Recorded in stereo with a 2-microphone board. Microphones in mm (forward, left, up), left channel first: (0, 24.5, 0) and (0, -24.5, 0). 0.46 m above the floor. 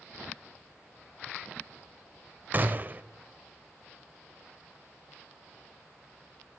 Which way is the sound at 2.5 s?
35° right (ahead or behind).